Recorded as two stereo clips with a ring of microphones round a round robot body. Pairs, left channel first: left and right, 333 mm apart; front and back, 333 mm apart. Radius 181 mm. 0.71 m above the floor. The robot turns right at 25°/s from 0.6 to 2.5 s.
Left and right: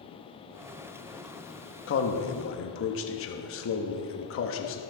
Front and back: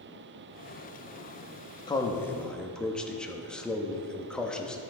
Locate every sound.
1.9 s a man speaking: 70° left, 0.9 m; by 4.8 s 85° left, 0.9 m